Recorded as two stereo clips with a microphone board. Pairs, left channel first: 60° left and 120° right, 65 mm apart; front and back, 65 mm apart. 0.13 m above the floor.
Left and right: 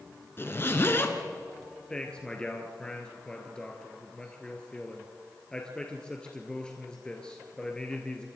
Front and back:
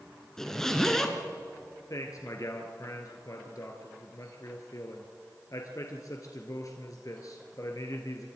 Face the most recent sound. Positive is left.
turn(degrees=-15)